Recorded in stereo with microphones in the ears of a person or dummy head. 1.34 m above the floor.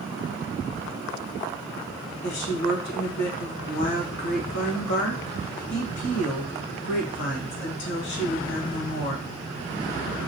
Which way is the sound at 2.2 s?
55° left (ahead or behind).